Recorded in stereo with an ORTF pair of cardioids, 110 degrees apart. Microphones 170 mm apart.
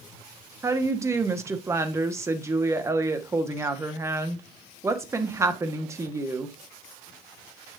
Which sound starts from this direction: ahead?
A woman speaking, at 0.6 s.